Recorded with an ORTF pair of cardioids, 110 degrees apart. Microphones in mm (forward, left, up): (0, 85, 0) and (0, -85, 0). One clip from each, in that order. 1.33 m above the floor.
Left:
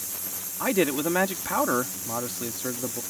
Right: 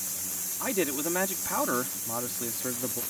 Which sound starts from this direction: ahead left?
A man speaking, at 0.6 s.